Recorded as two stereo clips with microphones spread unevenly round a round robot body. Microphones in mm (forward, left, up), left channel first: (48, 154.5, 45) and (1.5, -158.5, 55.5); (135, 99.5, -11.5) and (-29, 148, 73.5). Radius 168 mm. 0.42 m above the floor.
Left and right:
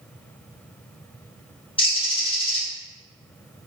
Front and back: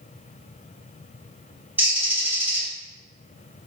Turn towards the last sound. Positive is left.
turn(degrees=35)